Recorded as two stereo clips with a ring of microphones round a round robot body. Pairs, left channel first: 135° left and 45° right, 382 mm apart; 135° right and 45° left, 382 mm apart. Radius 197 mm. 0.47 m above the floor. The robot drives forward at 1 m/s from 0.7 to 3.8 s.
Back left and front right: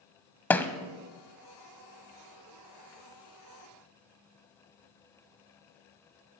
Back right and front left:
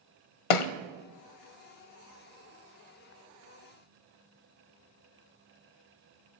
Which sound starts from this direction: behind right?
A thud, at 0.5 s.